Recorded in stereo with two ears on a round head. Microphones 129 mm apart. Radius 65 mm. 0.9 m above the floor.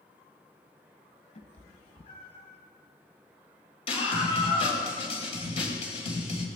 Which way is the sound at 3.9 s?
45° left (ahead or behind).